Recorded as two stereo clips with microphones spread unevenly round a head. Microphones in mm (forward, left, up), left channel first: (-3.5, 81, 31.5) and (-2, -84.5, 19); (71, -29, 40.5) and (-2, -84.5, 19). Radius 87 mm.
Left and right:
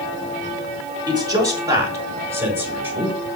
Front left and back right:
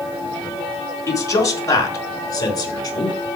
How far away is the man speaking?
About 5.5 m.